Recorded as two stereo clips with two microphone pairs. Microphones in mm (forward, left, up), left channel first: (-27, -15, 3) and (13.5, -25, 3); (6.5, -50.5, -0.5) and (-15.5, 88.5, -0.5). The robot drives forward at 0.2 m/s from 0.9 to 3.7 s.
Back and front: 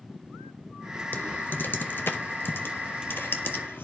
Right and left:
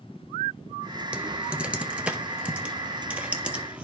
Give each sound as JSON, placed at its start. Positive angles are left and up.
{"t": 1.1, "sound": "typing on a keyboard", "azimuth_deg": 175, "distance_m": 0.7}